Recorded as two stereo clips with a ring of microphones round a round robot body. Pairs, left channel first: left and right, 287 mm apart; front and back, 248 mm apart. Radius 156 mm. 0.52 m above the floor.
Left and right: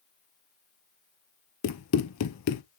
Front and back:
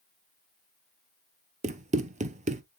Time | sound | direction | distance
1.6 | running footsteps | 120° left | 0.9 m